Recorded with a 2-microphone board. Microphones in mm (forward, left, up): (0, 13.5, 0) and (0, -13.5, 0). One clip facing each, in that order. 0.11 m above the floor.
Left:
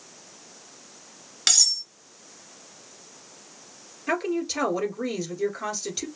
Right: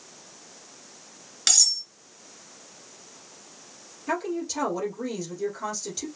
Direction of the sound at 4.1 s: 35° left (ahead or behind).